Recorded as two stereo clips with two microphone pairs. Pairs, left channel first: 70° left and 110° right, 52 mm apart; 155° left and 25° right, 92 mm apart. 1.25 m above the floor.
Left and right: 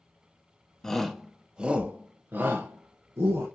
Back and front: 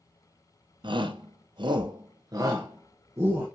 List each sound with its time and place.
0.8 s a shout: 10° right, 0.9 m; by 3.5 s 85° right, 1.4 m